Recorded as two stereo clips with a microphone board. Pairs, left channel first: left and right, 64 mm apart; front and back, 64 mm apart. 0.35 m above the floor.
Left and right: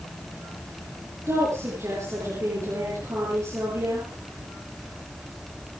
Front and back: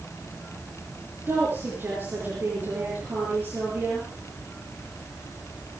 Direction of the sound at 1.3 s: 125° right.